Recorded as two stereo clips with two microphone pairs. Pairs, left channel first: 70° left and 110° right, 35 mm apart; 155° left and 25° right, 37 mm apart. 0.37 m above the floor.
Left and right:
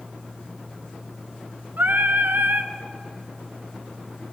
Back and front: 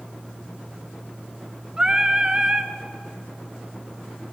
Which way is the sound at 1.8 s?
95° right.